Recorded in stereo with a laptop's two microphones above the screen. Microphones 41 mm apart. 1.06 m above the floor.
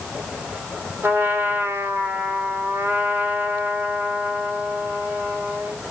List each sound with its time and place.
1.0 s a trumpet: 75° right (ahead or behind), 3.5 m